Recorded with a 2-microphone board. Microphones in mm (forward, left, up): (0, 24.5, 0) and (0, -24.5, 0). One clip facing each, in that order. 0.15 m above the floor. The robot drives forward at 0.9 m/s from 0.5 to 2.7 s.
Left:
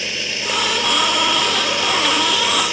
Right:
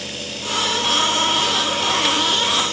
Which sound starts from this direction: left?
Running water, at 0.0 s.